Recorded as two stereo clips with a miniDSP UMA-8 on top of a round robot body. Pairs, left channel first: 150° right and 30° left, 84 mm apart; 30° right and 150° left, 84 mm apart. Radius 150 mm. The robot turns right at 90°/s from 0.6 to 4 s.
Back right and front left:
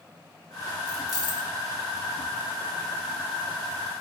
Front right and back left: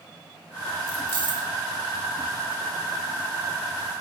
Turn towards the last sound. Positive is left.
turn(degrees=65)